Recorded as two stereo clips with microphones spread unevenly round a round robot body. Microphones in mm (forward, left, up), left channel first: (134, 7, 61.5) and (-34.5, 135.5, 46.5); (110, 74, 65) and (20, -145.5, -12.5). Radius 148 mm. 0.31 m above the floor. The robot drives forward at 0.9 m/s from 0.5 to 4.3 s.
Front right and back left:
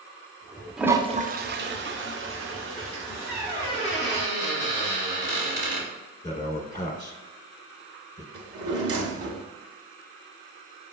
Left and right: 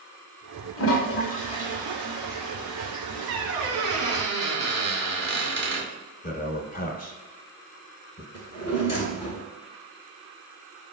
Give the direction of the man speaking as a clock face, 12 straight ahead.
11 o'clock.